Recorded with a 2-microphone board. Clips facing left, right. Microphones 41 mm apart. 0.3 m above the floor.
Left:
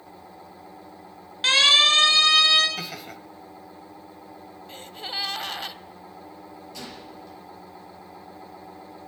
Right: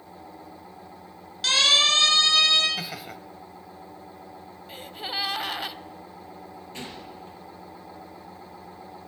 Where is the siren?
30° left (ahead or behind), 5 m; by 2.7 s 15° left (ahead or behind), 5.5 m.